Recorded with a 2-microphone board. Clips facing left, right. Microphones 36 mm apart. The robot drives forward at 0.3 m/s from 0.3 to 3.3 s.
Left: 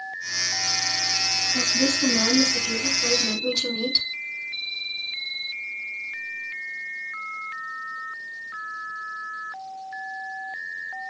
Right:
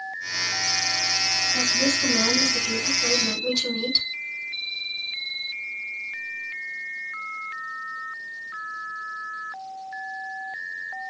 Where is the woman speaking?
10° left (ahead or behind), 2 m.